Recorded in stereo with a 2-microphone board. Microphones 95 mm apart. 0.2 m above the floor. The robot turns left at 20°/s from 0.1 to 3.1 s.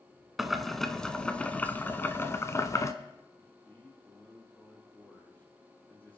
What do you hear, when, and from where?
0.4 s boiling: 175° right, 0.9 m; by 2.9 s 130° left, 0.9 m
3.4 s a man speaking: 20° left (ahead or behind), 5.5 m